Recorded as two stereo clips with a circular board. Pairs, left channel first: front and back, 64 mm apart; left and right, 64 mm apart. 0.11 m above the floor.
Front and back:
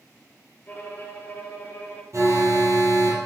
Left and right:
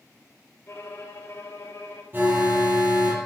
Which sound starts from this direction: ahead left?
A violin, at 0.7 s.